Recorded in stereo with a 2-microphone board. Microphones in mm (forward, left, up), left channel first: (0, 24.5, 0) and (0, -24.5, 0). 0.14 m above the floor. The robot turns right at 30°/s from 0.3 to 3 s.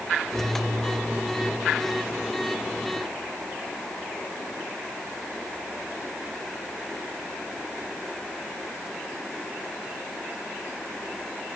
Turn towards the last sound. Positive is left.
No sound to turn to.